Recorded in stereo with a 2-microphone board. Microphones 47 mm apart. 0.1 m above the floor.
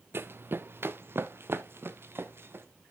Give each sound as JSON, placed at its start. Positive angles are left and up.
{"t": 0.1, "sound": "running footsteps", "side_deg": -50, "distance_m": 0.6}